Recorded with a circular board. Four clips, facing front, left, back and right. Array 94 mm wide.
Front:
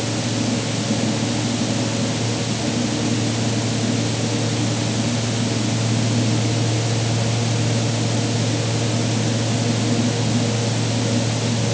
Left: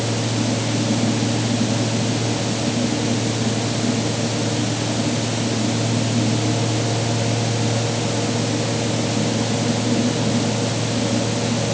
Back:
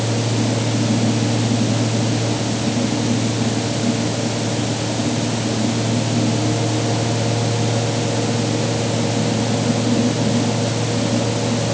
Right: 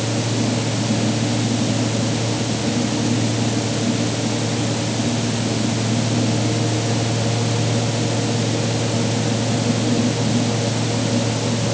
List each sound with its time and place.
Only background noise.